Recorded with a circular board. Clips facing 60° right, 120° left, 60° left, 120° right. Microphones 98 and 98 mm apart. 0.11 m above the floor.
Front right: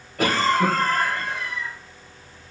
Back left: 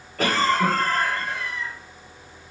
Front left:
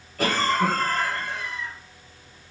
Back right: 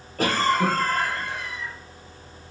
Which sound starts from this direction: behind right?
A cough, at 0.2 s.